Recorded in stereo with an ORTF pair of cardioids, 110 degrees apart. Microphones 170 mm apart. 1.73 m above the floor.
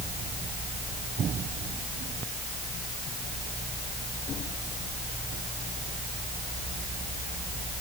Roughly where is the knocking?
No knocking in this recording.